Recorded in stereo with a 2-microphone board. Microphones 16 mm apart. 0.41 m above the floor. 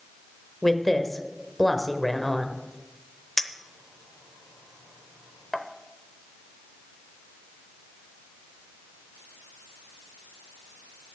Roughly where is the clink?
Left.